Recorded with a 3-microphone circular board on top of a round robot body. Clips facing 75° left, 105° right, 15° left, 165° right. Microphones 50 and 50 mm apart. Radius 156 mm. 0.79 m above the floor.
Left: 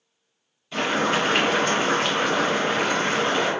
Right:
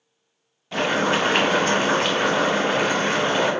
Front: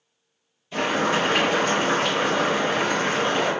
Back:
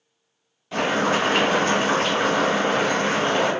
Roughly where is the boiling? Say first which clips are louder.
Right 2 dB, back 1 dB; behind right.